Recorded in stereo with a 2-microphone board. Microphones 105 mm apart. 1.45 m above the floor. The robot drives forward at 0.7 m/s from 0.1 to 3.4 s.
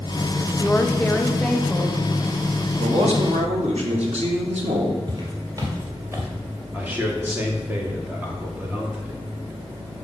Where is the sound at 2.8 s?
70° right (ahead or behind), 1.8 m; by 5.0 s 80° right, 1.8 m.